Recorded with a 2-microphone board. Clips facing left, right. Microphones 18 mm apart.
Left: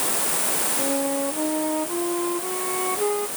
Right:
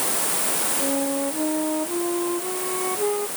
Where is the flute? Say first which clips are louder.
Even; 15° left (ahead or behind).